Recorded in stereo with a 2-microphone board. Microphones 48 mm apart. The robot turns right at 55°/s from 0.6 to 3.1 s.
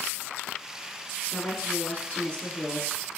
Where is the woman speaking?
15° left (ahead or behind), 1.5 m; by 2.9 s 20° left (ahead or behind), 1.5 m.